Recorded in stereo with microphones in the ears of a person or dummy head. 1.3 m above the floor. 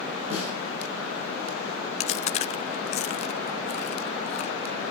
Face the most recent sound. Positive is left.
turn(degrees=35)  # may be behind; listen again after turning